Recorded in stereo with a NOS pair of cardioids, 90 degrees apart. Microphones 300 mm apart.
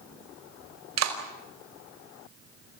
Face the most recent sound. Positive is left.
turn(degrees=-60)